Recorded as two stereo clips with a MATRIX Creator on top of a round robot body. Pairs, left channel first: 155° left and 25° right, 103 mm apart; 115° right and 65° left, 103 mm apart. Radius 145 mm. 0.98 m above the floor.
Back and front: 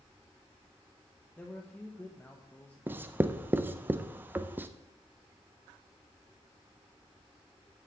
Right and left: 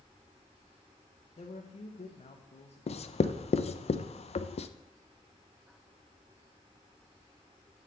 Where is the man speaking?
130° right, 1.0 m.